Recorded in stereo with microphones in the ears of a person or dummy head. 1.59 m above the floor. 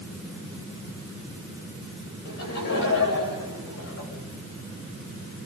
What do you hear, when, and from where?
2.2 s laughter: 60° left (ahead or behind), 8 m; by 4.1 s 70° left (ahead or behind), 8.5 m